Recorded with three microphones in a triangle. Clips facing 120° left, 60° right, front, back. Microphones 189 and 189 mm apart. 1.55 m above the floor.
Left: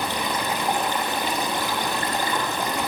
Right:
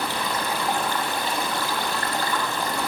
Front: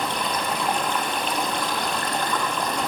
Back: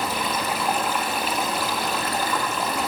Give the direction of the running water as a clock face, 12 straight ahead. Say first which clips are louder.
Left 1 dB, even; 8 o'clock.